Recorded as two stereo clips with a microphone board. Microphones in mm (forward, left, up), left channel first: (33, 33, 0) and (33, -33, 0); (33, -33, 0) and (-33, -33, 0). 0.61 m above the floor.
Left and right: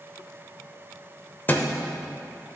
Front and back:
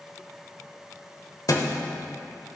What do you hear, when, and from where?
1.5 s a thud: 30° left, 0.8 m